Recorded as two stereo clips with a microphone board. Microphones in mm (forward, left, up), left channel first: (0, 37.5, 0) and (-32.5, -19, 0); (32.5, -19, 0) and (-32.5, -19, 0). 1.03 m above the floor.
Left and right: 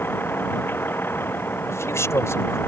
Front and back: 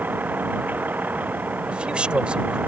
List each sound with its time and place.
0.0 s a vehicle: 120° left; by 2.7 s 115° left
1.7 s a man speaking: 105° left